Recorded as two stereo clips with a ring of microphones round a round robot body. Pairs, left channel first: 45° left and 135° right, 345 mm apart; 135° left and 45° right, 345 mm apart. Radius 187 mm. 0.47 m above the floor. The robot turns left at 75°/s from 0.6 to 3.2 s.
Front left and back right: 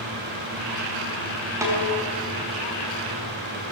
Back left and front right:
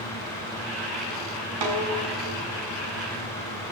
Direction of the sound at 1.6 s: 55° right.